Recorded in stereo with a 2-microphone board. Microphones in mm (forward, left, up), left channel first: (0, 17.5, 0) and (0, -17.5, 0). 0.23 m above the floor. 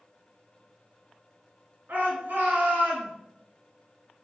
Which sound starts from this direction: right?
A shout, at 1.9 s.